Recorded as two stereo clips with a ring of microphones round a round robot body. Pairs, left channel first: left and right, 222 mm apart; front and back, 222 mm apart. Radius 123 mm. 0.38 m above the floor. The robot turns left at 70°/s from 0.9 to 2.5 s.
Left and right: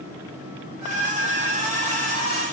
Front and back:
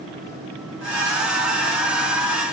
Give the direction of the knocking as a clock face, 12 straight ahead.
I don't hear knocking.